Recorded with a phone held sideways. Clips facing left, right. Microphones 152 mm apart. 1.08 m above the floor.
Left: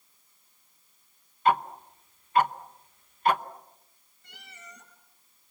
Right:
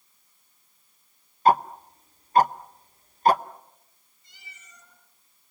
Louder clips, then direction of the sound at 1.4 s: Right 4 dB; 35° right (ahead or behind).